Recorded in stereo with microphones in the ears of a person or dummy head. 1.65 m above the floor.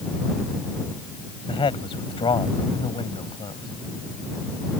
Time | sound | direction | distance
1.5 | a man speaking | 20° left (ahead or behind) | ?